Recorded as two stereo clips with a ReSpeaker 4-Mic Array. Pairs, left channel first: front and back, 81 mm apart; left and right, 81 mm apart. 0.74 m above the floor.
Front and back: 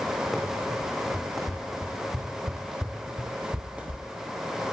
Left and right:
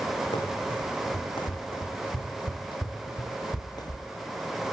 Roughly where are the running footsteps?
Left.